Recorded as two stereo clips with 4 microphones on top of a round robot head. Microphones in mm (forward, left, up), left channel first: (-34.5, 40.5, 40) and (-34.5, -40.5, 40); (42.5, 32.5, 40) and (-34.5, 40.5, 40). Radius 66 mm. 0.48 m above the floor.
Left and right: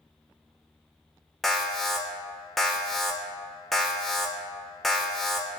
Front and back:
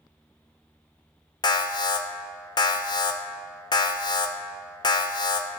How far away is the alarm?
About 0.8 m.